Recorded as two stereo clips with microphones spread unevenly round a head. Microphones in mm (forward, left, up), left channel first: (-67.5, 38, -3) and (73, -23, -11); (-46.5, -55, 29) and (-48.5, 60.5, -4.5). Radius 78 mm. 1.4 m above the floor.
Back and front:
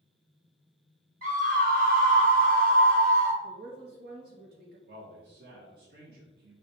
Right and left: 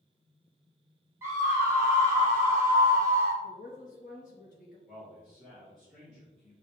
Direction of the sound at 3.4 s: 50° right.